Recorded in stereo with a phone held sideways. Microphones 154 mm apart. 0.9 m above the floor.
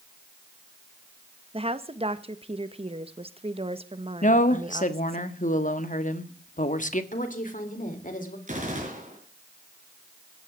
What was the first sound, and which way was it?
A woman speaking, 40° right (ahead or behind).